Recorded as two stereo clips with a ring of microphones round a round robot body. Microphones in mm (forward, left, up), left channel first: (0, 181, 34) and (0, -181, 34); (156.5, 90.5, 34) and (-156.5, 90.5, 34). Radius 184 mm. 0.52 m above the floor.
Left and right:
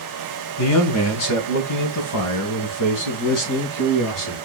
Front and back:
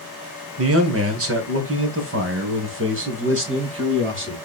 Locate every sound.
0.6 s a man speaking: 135° left, 2 m; by 4.3 s 130° left, 4.5 m